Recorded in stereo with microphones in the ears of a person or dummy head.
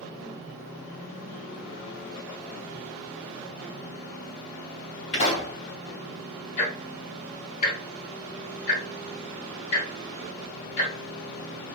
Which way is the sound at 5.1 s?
40° left (ahead or behind).